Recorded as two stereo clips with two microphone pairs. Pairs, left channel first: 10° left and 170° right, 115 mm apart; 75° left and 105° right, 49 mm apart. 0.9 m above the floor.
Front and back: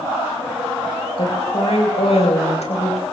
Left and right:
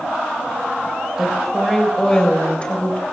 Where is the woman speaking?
20° right, 4 m; by 3.0 s 20° left, 4 m.